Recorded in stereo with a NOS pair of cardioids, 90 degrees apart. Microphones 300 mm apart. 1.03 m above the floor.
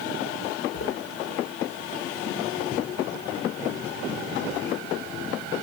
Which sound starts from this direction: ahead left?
Footsteps, at 0.7 s.